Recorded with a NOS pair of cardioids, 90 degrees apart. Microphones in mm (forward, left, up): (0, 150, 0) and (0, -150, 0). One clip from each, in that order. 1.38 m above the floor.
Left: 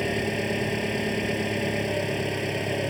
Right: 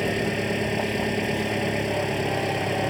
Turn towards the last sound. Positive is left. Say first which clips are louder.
# right 2 dB
turn(degrees=-10)